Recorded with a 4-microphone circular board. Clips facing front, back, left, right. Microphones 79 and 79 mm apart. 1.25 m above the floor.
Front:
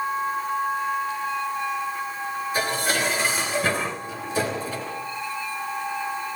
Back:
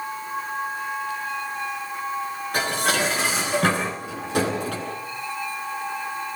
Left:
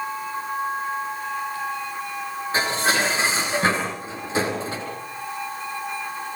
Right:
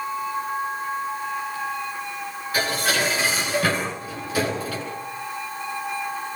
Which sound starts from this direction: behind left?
Dishes clattering, at 2.5 s.